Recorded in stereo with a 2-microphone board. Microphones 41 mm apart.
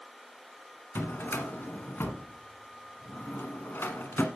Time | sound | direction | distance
0.9 | a drawer | 60° left (ahead or behind) | 1.3 m